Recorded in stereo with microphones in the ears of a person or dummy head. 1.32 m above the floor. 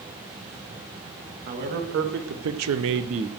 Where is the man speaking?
45° right (ahead or behind), 2 m; by 3.3 s 25° right (ahead or behind), 0.7 m.